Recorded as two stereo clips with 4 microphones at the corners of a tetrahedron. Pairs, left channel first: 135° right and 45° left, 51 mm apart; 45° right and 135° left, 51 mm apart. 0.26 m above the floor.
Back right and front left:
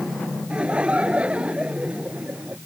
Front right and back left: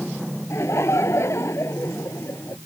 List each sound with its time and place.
0.5 s laughter: 20° right